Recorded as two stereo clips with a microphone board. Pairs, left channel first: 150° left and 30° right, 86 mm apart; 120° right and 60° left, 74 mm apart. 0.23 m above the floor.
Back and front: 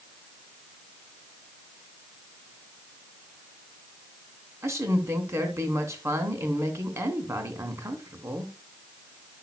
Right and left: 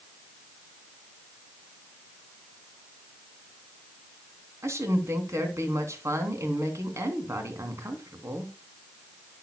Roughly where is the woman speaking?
Ahead.